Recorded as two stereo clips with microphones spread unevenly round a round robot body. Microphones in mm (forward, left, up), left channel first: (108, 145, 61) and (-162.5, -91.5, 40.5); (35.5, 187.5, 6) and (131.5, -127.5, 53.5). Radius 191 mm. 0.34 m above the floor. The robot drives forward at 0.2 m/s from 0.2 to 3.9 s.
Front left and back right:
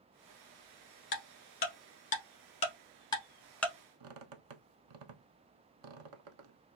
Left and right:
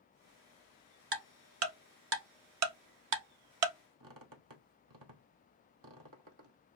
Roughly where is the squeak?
Right.